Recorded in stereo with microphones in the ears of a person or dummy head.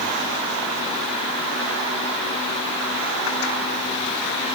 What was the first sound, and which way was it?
Only background noise.